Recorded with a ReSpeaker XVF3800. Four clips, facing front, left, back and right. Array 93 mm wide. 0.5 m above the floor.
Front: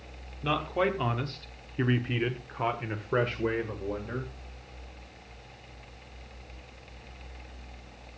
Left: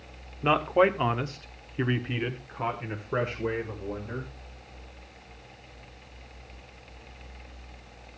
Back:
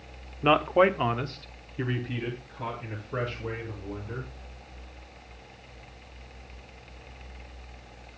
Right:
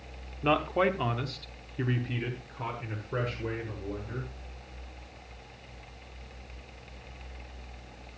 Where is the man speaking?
160° left, 1.1 m; by 4.3 s 20° left, 2.5 m.